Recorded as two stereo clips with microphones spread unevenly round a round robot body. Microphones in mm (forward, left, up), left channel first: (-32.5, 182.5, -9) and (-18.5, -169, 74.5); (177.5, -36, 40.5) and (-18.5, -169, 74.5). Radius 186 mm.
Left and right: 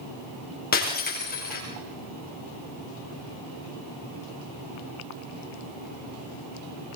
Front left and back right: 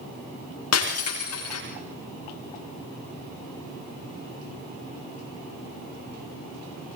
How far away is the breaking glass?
About 9.5 m.